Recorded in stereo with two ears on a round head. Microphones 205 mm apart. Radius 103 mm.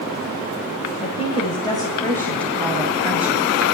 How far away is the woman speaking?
About 2 m.